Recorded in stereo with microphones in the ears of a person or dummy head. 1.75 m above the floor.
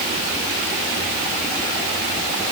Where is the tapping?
No tapping in this recording.